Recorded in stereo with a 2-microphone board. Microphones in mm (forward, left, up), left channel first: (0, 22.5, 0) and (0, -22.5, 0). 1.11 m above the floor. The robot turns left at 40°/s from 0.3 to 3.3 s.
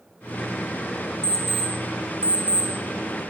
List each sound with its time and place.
1.2 s an alarm clock: 15° left (ahead or behind), 2.5 m; by 2.7 s 45° right (ahead or behind), 2.5 m